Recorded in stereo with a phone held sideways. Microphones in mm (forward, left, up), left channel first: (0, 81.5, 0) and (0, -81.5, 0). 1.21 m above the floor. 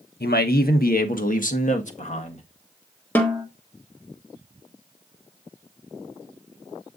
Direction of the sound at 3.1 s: 10° left (ahead or behind).